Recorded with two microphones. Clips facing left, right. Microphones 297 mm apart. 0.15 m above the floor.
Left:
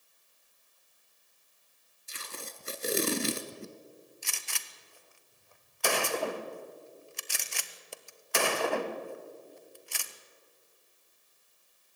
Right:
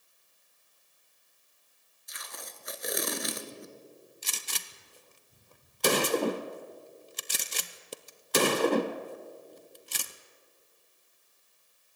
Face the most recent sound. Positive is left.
turn(degrees=-45)  # may be behind; listen again after turning